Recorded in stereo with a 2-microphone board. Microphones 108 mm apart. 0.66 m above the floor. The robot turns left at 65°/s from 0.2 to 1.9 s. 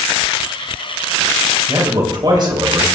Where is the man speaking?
30° right (ahead or behind), 3.5 m; by 2.9 s 45° right (ahead or behind), 3.5 m.